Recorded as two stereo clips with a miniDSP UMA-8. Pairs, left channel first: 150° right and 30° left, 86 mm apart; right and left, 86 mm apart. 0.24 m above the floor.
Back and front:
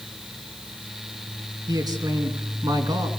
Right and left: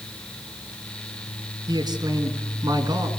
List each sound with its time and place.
1.7 s a man speaking: 60° left, 3.5 m